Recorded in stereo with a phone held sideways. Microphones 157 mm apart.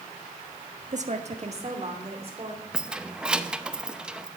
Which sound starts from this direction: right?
A woman speaking, at 0.9 s.